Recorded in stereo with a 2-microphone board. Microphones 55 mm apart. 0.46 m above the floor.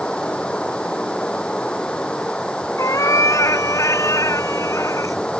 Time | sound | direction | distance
0.0 | running water | 20° left (ahead or behind) | ?
2.8 | a cat meowing | 60° left (ahead or behind) | ?